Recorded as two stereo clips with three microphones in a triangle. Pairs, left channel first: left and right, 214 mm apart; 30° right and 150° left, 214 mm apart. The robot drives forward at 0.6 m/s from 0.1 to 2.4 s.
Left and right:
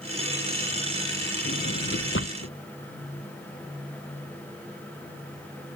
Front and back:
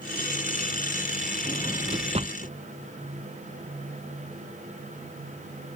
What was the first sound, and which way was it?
A drawer, 80° left.